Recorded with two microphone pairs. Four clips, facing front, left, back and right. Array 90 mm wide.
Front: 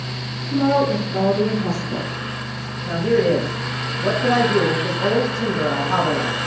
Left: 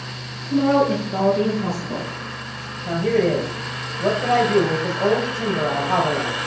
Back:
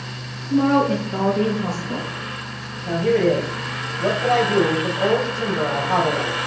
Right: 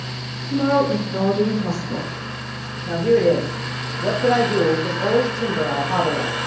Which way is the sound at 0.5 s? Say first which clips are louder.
Left 1 dB, back 1 dB; 150° left.